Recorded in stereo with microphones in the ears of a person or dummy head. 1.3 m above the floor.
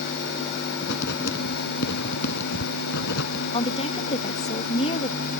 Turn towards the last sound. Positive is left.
turn(degrees=30)  # may be behind; listen again after turning